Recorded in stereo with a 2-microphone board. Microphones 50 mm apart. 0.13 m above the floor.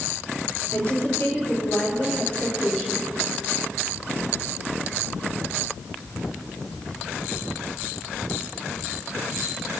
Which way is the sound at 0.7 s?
35° left (ahead or behind).